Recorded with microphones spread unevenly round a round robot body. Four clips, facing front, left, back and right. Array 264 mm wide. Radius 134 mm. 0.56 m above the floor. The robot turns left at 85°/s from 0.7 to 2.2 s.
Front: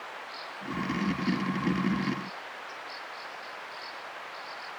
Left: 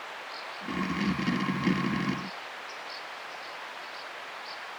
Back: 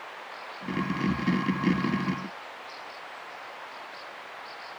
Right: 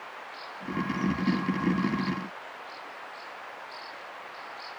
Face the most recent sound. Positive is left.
No sound to turn to.